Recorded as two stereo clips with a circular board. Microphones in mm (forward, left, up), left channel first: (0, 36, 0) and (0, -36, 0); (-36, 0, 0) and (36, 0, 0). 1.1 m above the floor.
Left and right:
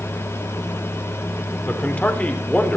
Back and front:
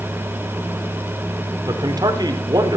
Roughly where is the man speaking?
Ahead.